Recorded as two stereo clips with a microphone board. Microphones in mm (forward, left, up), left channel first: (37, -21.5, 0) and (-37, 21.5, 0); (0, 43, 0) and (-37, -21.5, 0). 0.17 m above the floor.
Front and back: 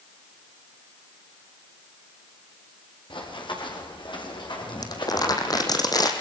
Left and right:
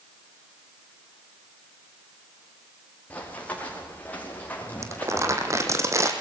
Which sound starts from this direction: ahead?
Running footsteps, at 3.1 s.